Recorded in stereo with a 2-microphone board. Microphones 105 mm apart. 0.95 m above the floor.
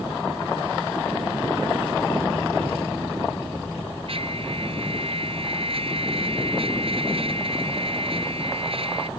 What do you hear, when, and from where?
4.1 s a trumpet: 60° right (ahead or behind)